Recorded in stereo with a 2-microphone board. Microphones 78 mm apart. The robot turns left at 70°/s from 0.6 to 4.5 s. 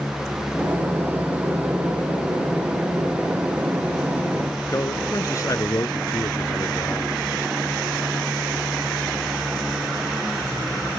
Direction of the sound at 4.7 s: 45° left (ahead or behind).